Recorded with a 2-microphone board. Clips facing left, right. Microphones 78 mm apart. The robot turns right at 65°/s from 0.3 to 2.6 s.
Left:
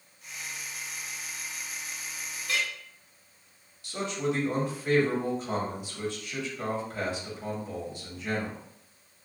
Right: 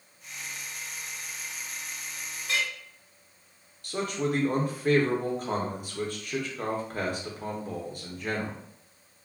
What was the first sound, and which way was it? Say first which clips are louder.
A clink: right 1 dB; 20° right (ahead or behind).